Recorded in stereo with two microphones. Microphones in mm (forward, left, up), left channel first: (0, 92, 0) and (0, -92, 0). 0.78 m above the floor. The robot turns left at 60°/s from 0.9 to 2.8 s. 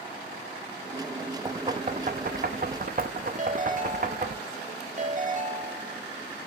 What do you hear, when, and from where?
1.4 s knocking: 25° right (ahead or behind), 0.7 m; by 4.4 s 50° right (ahead or behind), 0.7 m
3.4 s a ringtone: 45° right (ahead or behind), 1.2 m